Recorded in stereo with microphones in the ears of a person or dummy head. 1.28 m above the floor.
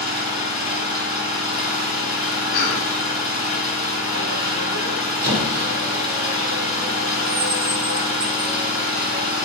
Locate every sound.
0.0 s an engine running: 10° right (ahead or behind), 1.9 m
2.5 s a cough: 55° left (ahead or behind), 0.6 m
5.2 s a squeak: 55° right (ahead or behind), 1.2 m